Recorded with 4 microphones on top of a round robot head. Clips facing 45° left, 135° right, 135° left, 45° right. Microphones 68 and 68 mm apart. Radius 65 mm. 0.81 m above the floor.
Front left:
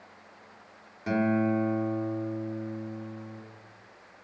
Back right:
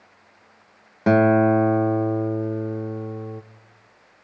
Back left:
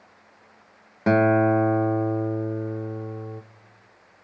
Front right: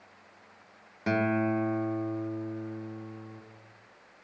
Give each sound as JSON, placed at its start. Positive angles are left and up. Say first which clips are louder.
{"t": 1.1, "sound": "a guitar", "louder": "back right 10 dB, back left 9 dB", "azimuth_deg": -170, "distance_m": 1.3}